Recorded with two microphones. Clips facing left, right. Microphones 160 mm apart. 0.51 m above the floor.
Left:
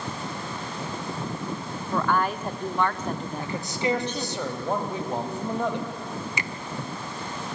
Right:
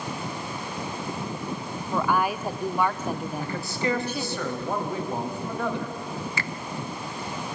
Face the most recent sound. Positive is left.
turn(degrees=20)  # may be behind; listen again after turning